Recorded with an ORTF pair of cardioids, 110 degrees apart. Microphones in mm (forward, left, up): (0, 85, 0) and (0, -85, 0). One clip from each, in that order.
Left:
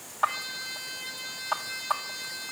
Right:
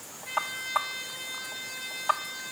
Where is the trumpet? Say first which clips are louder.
Right 3 dB; 25° left, 6.5 m.